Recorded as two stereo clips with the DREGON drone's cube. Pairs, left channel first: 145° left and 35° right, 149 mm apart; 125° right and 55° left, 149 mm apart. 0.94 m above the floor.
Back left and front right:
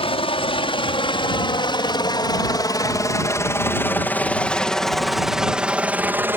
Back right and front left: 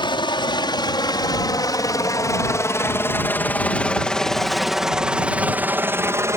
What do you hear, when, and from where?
0.0 s a helicopter: 175° right; by 6.4 s 20° left